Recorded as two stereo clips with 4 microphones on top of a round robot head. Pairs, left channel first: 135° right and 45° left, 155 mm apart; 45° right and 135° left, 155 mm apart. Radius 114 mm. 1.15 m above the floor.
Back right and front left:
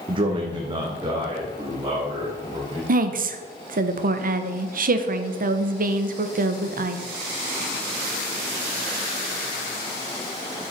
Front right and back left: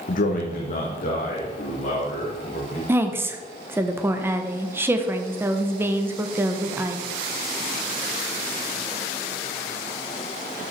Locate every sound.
0.1 s a man speaking: 10° right, 0.8 m; by 2.8 s 20° right, 3 m
2.9 s a woman speaking: 60° left, 1.1 m